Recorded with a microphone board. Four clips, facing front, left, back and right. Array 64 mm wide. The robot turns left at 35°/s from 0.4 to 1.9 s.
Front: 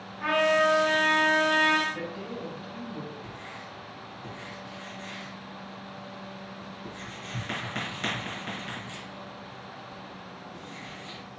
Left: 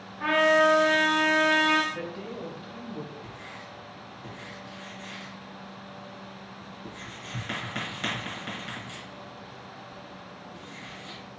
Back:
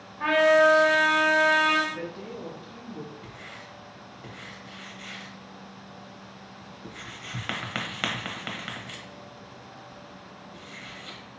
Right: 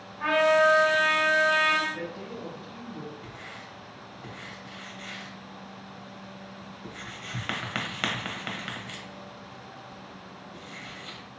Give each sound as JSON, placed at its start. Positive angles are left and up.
{"t": 0.2, "sound": "a trumpet", "azimuth_deg": 175, "distance_m": 1.3}
{"t": 1.9, "sound": "a woman speaking", "azimuth_deg": 60, "distance_m": 1.7}
{"t": 3.2, "sound": "writing", "azimuth_deg": -135, "distance_m": 0.9}